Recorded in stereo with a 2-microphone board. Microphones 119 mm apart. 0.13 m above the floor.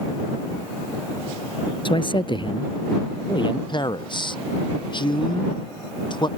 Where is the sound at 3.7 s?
40° left (ahead or behind).